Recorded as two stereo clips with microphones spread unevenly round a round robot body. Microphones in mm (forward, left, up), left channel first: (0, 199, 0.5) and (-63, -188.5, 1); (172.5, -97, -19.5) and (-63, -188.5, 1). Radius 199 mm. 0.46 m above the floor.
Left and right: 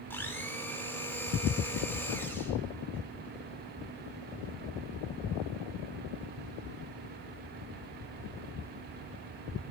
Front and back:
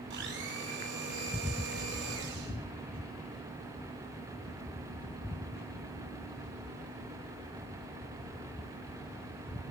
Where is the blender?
165° left, 1.0 m.